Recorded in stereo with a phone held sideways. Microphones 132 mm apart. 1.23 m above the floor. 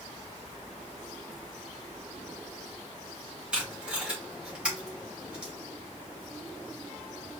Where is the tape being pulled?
10° right (ahead or behind), 2.5 m.